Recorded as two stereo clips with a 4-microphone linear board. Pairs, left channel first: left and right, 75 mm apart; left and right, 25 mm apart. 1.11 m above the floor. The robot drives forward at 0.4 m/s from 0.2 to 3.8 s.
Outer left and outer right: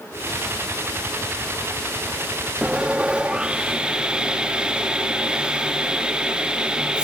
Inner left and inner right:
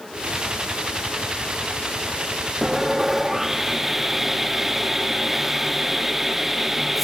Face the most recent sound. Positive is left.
turn(degrees=-10)  # may be behind; listen again after turning